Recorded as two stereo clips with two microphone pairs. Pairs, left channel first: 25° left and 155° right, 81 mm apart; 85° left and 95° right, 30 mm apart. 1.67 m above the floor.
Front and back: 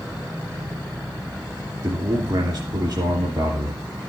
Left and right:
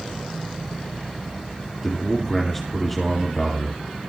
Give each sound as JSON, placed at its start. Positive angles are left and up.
{"t": 1.8, "sound": "a man speaking", "azimuth_deg": 175, "distance_m": 2.5}